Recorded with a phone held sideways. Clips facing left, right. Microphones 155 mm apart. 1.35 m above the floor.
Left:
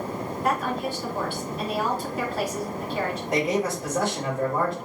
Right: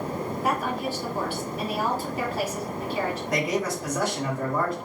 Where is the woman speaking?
5° right (ahead or behind), 2.5 m.